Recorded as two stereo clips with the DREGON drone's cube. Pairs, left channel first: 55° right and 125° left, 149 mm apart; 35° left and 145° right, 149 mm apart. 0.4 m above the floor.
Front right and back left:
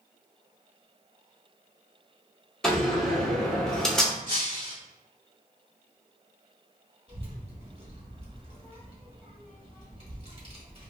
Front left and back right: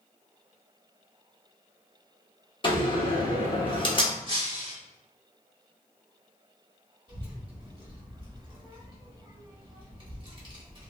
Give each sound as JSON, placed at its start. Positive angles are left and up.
{"t": 2.6, "sound": "a door slam", "azimuth_deg": 25, "distance_m": 0.8}
{"t": 4.3, "sound": "breaking glass", "azimuth_deg": 165, "distance_m": 1.1}
{"t": 7.1, "sound": "a child speaking", "azimuth_deg": 165, "distance_m": 1.4}